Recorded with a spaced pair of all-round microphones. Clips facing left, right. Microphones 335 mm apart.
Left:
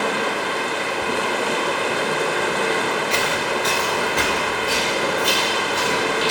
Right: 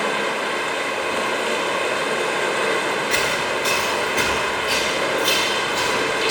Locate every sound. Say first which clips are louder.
0.0 s running water: left 1 dB; 55° left (ahead or behind), 0.9 m
3.1 s footsteps: left 1 dB; 25° right (ahead or behind), 1.3 m; by 6.3 s 45° left (ahead or behind), 3 m